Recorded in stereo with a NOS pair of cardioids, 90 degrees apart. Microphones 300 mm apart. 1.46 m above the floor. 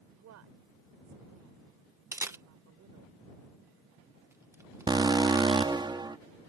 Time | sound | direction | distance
0.1 | a woman speaking | 70° right | ?
2.1 | a camera shutter | 10° right | ?
4.9 | an alarm | 15° right | ?